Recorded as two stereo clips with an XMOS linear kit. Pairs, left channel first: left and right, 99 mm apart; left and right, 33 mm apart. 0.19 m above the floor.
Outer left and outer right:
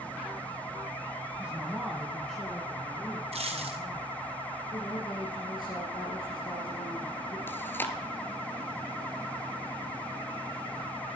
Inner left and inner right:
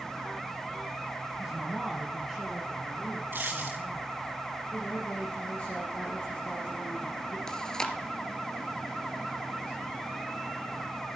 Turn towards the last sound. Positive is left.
turn(degrees=20)  # may be behind; listen again after turning